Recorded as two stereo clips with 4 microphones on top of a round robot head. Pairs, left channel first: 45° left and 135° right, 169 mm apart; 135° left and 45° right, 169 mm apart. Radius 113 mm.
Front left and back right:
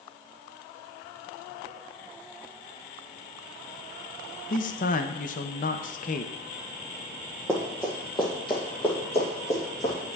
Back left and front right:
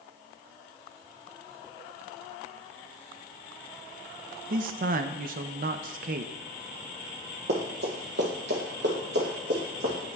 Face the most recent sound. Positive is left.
turn(degrees=-5)